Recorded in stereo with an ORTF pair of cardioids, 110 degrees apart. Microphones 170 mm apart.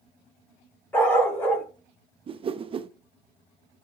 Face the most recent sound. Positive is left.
turn(degrees=-35)